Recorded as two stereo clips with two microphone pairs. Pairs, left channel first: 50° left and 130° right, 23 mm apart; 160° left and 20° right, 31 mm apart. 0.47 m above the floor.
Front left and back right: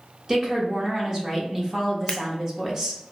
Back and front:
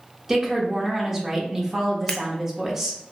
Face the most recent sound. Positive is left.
turn(degrees=95)